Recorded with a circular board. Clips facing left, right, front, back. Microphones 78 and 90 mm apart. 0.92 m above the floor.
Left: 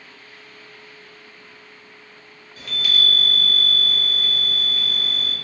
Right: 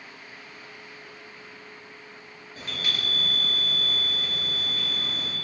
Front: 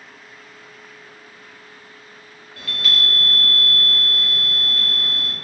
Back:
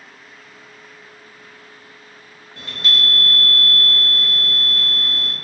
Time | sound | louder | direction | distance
2.6 | a chime | left 7 dB, back 1 dB | 130° right | 0.9 m